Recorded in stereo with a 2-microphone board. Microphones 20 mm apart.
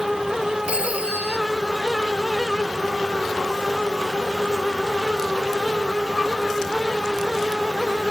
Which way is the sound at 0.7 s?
75° right (ahead or behind).